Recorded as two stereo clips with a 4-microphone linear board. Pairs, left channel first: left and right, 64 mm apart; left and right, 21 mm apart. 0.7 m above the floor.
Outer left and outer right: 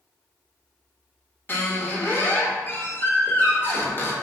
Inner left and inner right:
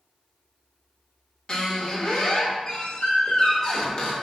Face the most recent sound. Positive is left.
turn(degrees=30)  # may be behind; listen again after turning